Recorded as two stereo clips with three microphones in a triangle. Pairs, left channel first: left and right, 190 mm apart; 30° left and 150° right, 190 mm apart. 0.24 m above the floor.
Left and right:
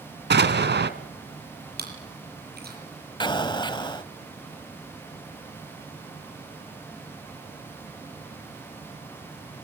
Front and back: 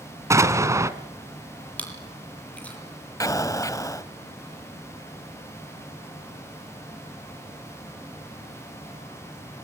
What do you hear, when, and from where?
0.3 s an explosion: 75° right, 1.5 m
1.8 s chewing: 55° right, 7.5 m
3.2 s an explosion: 75° left, 1.0 m